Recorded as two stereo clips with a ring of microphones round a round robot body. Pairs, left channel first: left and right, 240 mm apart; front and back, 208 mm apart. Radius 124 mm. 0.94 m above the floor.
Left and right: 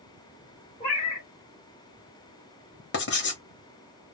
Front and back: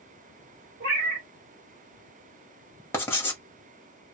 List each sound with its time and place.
0.8 s a cat meowing: 155° left, 1.3 m
2.9 s writing: 75° left, 1.3 m